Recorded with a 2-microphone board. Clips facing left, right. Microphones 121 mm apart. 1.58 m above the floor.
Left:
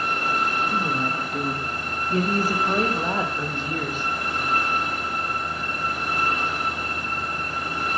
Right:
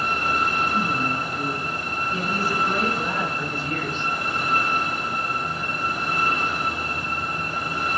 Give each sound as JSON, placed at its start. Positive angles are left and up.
{"t": 0.7, "sound": "a woman speaking", "side_deg": 60, "distance_m": 2.0}